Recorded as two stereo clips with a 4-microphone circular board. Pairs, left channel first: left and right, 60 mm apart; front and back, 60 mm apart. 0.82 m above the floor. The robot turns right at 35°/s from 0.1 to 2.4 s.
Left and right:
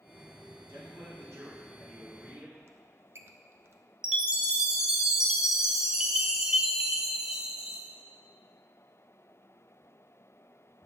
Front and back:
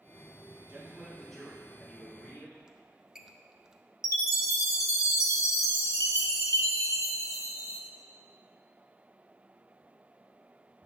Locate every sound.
0.7 s a man speaking: 110° right, 1.7 m; by 2.6 s 50° right, 1.7 m
2.7 s a squeak: 105° right, 0.5 m
4.0 s a chime: 15° right, 0.8 m